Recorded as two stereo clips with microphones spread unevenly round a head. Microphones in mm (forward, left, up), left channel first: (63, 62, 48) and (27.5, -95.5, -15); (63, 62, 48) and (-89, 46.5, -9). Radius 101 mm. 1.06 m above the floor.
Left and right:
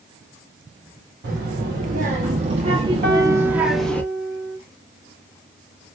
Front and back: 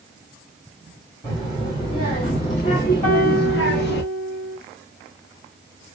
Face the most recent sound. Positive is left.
turn(degrees=-60)